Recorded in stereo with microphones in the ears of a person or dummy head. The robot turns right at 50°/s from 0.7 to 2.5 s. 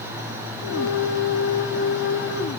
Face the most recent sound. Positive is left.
No sound to turn to.